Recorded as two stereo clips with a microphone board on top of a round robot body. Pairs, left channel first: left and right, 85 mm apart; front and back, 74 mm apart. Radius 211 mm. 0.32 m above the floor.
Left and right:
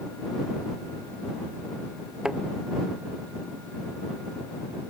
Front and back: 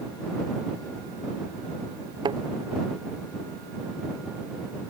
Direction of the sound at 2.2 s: 170° right.